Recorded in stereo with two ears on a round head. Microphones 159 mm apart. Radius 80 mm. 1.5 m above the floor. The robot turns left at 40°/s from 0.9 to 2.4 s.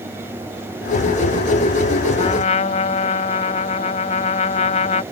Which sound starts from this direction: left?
A trumpet, at 2.2 s.